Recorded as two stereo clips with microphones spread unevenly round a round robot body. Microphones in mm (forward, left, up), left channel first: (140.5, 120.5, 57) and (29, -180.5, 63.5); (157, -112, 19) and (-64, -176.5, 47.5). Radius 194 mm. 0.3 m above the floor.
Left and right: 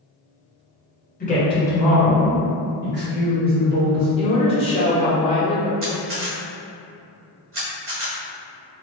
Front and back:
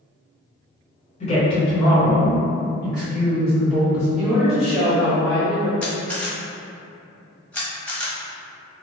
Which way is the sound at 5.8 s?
65° right.